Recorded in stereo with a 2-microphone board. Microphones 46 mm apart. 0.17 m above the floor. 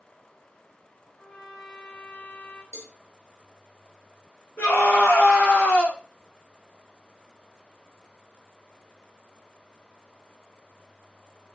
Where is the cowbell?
70° left (ahead or behind), 1.1 m.